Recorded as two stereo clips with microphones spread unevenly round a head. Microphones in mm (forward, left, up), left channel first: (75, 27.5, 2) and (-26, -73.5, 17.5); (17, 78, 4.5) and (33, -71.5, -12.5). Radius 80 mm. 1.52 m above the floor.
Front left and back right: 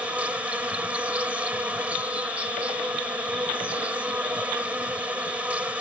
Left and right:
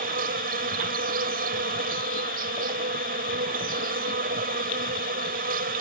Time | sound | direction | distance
0.0 | an insect | 55° right | ?